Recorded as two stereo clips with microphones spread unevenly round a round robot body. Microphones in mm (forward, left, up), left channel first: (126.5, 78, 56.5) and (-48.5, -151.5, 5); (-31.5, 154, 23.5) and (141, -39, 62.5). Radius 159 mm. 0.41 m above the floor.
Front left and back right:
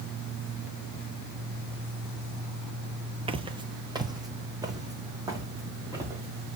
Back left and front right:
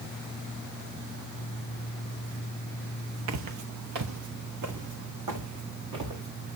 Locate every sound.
3.3 s footsteps: 50° right, 0.6 m; by 6.6 s 45° right, 3.5 m